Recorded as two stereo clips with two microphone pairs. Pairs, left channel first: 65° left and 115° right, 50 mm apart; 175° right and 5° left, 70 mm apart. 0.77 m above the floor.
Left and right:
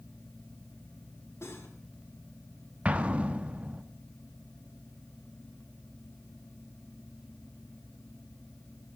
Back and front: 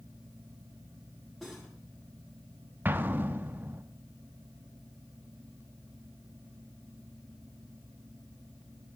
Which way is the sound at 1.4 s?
90° left.